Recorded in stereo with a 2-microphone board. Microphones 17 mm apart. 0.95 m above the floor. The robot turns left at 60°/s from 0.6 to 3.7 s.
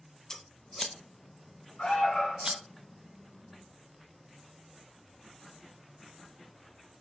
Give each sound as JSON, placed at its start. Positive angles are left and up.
{"t": 0.3, "sound": "scissors", "side_deg": 40, "distance_m": 0.9}
{"t": 1.8, "sound": "an alarm", "azimuth_deg": 85, "distance_m": 5.0}